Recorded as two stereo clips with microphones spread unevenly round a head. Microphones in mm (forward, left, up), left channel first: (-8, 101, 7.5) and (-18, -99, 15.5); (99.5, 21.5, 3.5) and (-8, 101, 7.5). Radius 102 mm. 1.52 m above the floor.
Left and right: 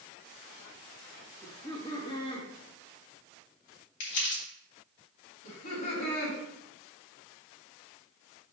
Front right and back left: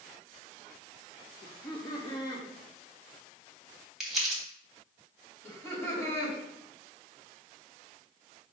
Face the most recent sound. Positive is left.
turn(degrees=35)